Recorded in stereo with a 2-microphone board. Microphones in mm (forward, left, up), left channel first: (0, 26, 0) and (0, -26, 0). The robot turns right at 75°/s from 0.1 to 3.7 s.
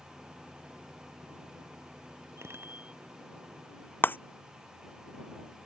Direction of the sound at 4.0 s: 40° left (ahead or behind).